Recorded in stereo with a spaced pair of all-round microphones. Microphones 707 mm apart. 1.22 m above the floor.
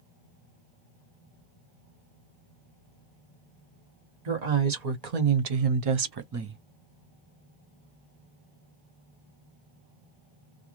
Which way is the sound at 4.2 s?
70° right (ahead or behind).